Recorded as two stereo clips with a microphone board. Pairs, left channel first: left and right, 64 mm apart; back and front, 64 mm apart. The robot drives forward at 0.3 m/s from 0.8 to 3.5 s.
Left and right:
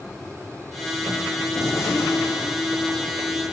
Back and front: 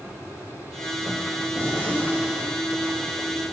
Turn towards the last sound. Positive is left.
turn(degrees=115)